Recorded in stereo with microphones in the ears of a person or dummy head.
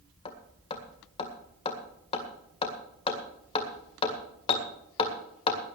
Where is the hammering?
35° left (ahead or behind), 1.9 m.